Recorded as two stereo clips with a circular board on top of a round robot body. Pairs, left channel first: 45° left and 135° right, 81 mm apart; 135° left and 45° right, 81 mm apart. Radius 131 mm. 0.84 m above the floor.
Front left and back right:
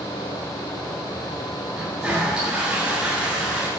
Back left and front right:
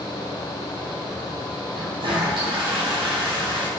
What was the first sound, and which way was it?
A toilet flushing, 55° right.